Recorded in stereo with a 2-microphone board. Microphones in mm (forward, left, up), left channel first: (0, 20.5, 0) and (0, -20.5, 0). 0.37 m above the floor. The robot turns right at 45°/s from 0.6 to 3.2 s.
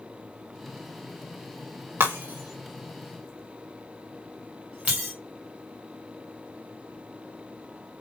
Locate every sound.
2.0 s breaking glass: 85° right, 2.5 m; by 5.1 s 35° right (ahead or behind), 2.5 m